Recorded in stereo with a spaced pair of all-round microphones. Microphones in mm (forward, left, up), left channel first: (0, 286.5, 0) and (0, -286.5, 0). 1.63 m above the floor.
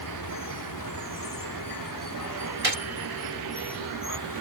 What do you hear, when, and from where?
0.0 s running water: 35° left (ahead or behind)
2.6 s a gunshot: 70° right (ahead or behind)